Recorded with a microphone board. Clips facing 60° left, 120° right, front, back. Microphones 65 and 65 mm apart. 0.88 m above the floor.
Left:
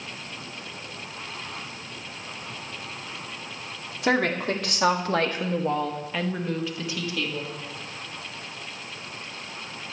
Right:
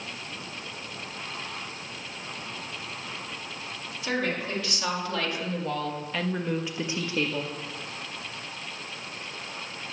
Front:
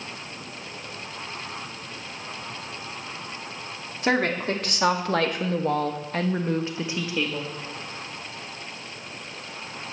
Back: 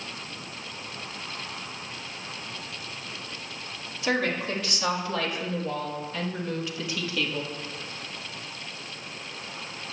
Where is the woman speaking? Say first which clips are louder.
Left 6 dB, front 3 dB; 40° left, 2.5 m; by 7.5 s 80° right, 1.8 m.